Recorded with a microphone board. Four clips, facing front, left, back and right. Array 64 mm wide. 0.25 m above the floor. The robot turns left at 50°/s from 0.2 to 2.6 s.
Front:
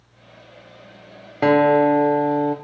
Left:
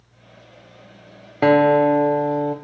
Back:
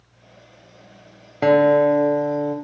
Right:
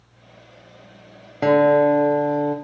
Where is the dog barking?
No dog barking in this recording.